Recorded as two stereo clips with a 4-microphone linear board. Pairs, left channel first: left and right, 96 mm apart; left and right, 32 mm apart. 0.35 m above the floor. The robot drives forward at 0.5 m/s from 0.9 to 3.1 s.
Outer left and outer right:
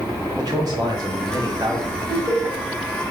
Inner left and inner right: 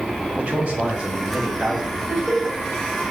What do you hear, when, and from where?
0.4 s a man speaking: 45° right (ahead or behind), 1.3 m; by 2.0 s 35° right (ahead or behind), 1.5 m
2.1 s laughter: 25° right (ahead or behind), 1.7 m